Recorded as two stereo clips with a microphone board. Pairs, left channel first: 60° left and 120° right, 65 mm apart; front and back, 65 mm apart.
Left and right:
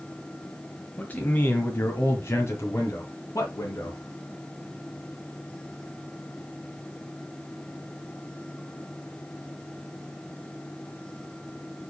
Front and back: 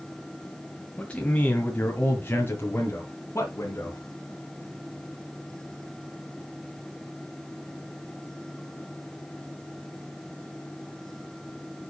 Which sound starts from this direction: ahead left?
A man speaking, at 1.0 s.